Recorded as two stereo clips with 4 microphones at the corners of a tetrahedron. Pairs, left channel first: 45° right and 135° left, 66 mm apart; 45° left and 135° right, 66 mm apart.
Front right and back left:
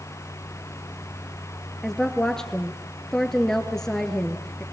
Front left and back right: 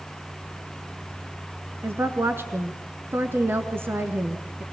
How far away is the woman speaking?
About 1.5 m.